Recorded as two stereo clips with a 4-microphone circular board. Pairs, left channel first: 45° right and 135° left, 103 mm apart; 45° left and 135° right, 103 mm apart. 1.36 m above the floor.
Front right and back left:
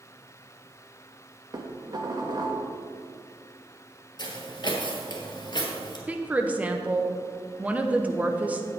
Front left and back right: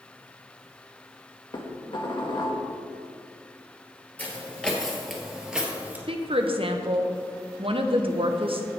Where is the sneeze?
No sneeze in this recording.